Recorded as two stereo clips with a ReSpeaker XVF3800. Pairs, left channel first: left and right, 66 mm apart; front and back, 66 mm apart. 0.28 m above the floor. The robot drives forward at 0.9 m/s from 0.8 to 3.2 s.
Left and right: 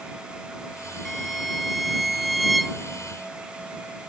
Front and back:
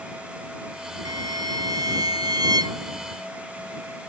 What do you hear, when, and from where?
1.1 s a violin: straight behind